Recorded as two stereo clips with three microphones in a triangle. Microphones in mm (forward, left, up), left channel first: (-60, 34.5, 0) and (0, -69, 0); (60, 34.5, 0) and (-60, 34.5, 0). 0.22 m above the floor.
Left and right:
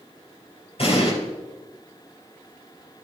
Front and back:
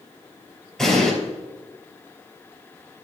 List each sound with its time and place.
0.8 s an explosion: 85° left, 3.5 m